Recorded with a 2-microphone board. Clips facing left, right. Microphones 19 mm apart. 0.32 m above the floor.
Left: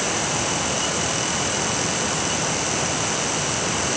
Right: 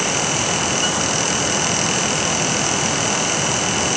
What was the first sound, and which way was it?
Only background noise.